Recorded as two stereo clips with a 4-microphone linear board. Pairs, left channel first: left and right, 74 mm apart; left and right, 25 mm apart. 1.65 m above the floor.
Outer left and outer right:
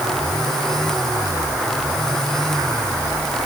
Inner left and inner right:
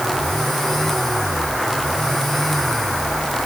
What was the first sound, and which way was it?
Only background noise.